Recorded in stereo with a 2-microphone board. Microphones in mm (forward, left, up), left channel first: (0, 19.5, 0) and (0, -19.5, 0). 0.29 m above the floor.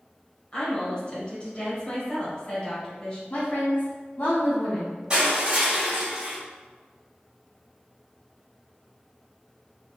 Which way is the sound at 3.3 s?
45° left (ahead or behind).